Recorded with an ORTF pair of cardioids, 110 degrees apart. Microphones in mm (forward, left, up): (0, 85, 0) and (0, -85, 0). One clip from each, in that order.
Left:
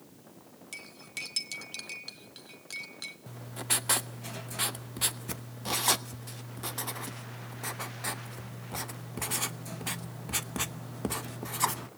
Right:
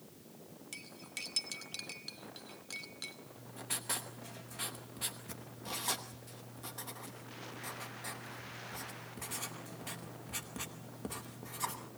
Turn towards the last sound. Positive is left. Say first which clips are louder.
# left 9 dB
turn(degrees=45)